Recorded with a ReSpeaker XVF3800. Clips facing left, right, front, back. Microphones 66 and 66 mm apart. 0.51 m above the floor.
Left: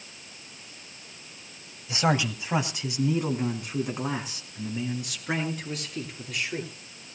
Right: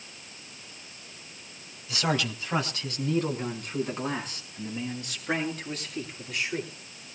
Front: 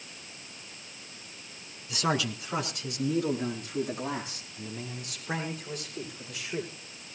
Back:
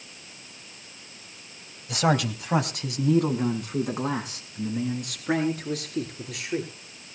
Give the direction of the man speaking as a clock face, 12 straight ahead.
7 o'clock.